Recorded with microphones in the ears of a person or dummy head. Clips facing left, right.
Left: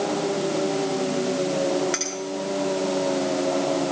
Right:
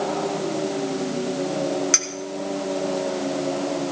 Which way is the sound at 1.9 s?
50° right (ahead or behind).